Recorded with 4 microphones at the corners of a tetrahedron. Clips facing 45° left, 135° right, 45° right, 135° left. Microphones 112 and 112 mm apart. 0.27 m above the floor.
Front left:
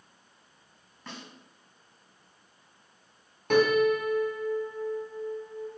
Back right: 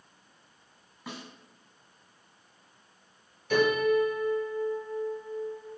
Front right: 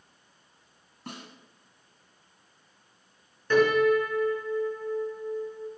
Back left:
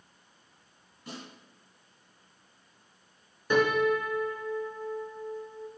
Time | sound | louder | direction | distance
1.1 | a snare drum | back right 2 dB, front right 1 dB | 50° right | 2.5 m
3.5 | a piano | front left 2 dB, front right 4 dB | 60° left | 2.5 m